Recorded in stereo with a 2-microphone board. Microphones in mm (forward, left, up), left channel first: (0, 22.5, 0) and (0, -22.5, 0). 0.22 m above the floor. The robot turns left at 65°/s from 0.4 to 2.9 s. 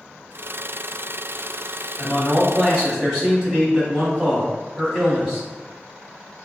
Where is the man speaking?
30° left, 1.5 m; by 5.5 s 30° right, 1.5 m.